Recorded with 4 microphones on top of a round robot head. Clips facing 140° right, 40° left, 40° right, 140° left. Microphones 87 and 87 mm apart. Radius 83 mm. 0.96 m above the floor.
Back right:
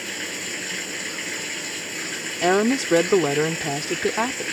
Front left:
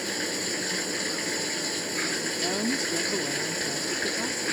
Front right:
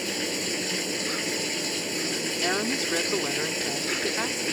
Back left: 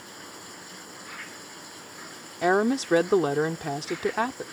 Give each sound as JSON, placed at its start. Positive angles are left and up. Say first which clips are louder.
{"t": 0.0, "sound": "running water", "louder": "front left 2 dB, front right 13 dB", "azimuth_deg": -35}
{"t": 2.4, "sound": "a woman speaking", "louder": "back right 12 dB, back left 8 dB", "azimuth_deg": -165}